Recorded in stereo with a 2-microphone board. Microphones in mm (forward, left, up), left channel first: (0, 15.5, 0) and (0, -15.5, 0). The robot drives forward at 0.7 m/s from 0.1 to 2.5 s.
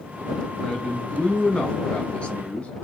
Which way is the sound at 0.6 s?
35° left (ahead or behind).